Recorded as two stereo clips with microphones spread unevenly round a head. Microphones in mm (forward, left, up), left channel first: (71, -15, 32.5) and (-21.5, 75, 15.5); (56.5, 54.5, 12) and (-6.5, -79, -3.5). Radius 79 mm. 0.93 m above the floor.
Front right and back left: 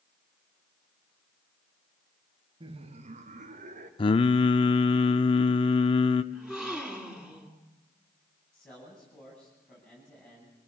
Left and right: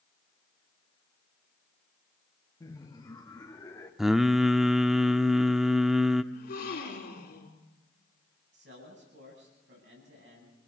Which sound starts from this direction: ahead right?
Singing, at 4.0 s.